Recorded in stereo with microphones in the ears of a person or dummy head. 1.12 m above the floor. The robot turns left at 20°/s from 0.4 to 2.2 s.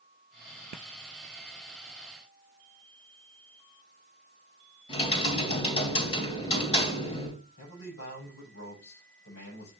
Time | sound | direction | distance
4.9 | typing on a keyboard | 35° left (ahead or behind) | 3.5 m
7.6 | a man speaking | 80° left | 7 m